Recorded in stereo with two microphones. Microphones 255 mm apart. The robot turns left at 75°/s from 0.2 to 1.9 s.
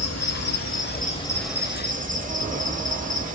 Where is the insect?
95° left, 0.8 m; by 3.4 s 30° right, 0.8 m.